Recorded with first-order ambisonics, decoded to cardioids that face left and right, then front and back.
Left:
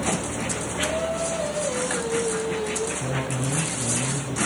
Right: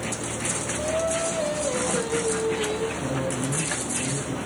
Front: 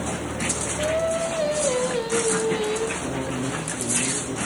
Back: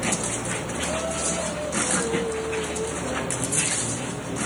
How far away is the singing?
About 1.5 m.